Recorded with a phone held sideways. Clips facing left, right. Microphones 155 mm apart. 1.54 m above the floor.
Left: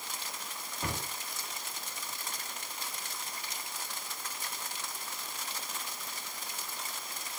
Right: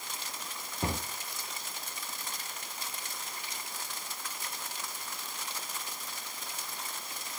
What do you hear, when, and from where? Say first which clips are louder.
0.8 s a cupboard door: right 4 dB; 30° right (ahead or behind), 1.1 m